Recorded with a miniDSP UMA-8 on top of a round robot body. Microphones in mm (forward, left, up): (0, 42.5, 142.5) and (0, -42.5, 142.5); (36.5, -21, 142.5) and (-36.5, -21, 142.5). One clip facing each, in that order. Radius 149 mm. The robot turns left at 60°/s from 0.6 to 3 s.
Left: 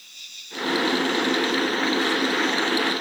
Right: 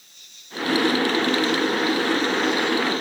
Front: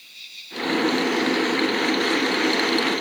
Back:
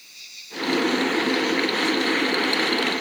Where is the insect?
110° left; by 3.0 s 35° right.